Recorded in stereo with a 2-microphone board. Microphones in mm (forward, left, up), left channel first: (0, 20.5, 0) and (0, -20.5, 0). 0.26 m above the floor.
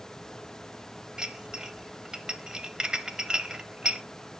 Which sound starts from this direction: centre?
Dishes clattering, at 1.2 s.